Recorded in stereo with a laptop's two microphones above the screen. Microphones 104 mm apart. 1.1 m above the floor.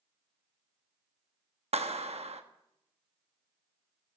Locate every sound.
1.7 s a clap: 80° right, 1.0 m